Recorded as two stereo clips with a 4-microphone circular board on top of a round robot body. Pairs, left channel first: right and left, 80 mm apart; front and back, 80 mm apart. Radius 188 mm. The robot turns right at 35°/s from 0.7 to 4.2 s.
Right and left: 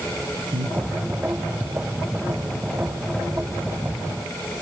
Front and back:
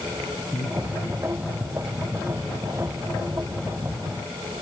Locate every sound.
0.5 s breathing: 95° left, 7.5 m; by 0.8 s 100° left, 7.5 m